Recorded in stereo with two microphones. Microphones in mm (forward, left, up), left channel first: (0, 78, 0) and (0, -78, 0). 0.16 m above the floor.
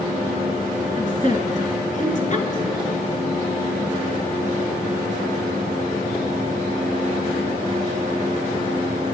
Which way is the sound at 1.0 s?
50° left (ahead or behind).